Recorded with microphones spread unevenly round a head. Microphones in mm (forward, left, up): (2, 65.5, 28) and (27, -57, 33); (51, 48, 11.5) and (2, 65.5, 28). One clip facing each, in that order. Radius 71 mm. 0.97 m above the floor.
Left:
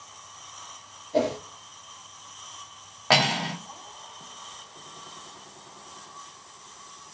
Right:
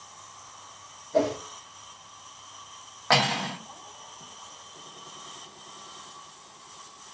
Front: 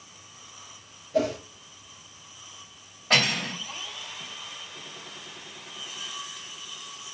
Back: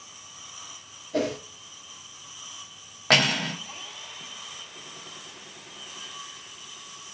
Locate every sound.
1.1 s a whoosh: 165° left, 3 m
3.1 s cutlery clinking: 175° left, 0.9 m